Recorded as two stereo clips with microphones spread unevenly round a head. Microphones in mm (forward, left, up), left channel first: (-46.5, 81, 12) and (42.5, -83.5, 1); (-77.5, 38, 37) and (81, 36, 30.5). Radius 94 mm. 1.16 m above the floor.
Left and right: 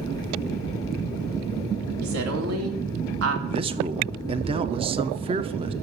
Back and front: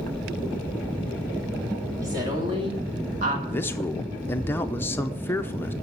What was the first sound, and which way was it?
A woman speaking, 75° right.